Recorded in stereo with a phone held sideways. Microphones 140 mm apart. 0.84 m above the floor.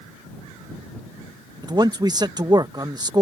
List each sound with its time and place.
1.6 s a man speaking: 30° right (ahead or behind)